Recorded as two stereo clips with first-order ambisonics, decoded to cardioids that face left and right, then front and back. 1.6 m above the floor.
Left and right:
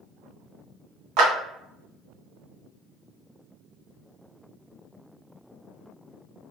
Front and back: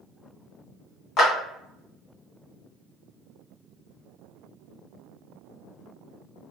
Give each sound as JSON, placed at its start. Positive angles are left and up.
{"t": 1.2, "sound": "a clap", "azimuth_deg": -55, "distance_m": 1.3}